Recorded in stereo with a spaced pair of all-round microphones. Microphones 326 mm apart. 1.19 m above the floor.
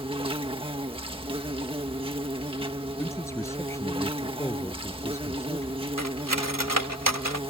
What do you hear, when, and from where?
0.0 s an insect: 15° right (ahead or behind)
3.0 s a man speaking: 10° left (ahead or behind)
6.0 s cutlery clinking: 75° right (ahead or behind)